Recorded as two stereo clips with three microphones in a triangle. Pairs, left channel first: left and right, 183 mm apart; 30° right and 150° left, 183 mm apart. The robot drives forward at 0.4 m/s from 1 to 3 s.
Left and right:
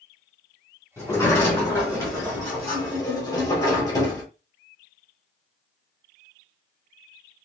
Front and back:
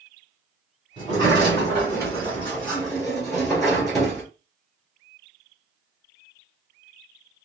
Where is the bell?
I don't hear a bell.